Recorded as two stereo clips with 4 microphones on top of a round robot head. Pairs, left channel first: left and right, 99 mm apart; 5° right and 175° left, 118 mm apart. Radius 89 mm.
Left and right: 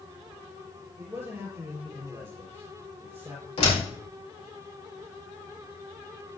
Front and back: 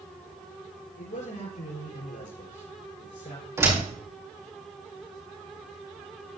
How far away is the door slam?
About 4 m.